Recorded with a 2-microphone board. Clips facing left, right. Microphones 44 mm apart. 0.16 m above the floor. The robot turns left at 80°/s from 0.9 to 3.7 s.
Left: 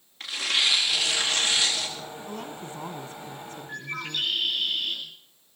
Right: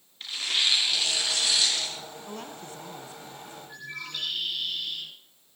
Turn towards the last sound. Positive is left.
turn(degrees=65)  # may be behind; listen again after turning